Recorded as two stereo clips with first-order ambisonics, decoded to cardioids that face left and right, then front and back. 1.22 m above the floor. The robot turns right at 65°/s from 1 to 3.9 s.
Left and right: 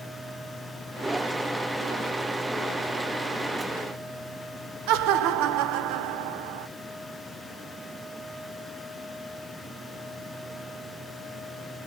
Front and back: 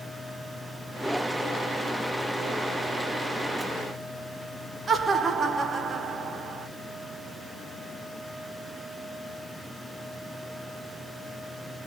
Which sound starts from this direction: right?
Laughter, at 4.9 s.